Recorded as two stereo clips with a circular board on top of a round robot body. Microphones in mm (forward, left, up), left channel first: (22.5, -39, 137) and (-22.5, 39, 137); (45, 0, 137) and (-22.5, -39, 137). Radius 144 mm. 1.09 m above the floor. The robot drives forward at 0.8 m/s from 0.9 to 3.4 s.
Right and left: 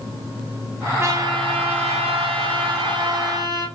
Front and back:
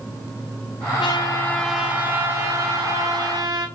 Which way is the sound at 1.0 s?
55° left.